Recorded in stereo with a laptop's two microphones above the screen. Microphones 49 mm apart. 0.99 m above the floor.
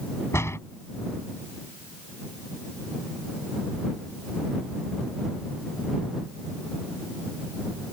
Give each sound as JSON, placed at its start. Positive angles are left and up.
{"t": 0.3, "sound": "a door slam", "side_deg": 65}